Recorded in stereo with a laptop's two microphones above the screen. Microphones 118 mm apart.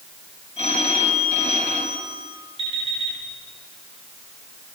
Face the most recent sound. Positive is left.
turn(degrees=50)  # may be behind; listen again after turning